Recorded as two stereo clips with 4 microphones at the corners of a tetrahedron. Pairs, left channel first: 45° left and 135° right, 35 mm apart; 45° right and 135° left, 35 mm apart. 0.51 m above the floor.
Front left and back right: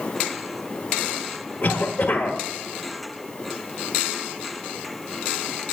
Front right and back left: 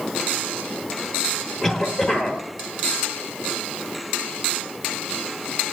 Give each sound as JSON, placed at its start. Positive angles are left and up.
{"t": 1.6, "sound": "a cough", "azimuth_deg": 10, "distance_m": 1.3}